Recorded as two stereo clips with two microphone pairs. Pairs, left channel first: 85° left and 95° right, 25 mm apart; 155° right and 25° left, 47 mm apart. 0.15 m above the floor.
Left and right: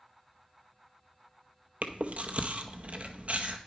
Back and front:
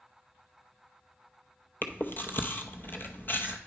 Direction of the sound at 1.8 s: 115° right.